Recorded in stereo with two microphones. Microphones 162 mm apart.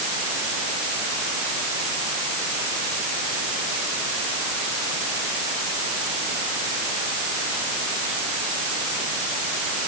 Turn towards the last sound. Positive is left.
No sound to turn to.